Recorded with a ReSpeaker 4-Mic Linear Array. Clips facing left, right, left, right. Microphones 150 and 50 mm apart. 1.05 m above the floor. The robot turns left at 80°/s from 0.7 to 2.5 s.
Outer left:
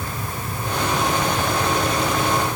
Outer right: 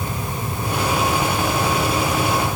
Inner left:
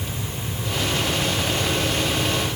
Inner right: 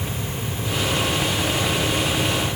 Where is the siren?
No siren in this recording.